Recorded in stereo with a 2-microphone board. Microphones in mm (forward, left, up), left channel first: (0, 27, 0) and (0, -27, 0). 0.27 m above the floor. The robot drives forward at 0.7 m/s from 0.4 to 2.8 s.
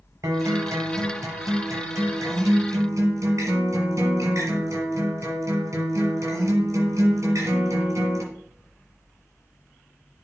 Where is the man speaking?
I don't hear a man speaking.